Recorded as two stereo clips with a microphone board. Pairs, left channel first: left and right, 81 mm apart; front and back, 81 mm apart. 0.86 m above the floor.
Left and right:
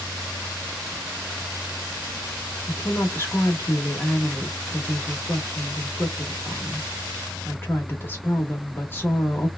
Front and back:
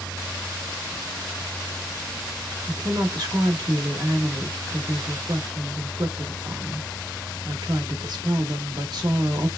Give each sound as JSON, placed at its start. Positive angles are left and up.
{"t": 2.7, "sound": "a woman speaking", "azimuth_deg": 150, "distance_m": 1.4}